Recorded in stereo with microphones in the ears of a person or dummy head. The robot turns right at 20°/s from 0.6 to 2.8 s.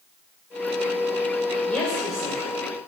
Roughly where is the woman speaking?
Centre.